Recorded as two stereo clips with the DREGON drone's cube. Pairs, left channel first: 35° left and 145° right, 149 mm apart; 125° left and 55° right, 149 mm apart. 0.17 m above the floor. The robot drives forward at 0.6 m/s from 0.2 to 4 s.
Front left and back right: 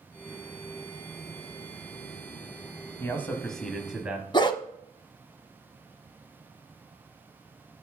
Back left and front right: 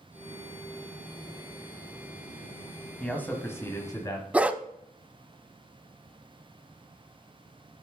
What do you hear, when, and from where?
3.0 s a man speaking: 60° left, 1.2 m; by 4.2 s 140° left, 1.2 m
4.3 s a dog barking: 15° left, 0.5 m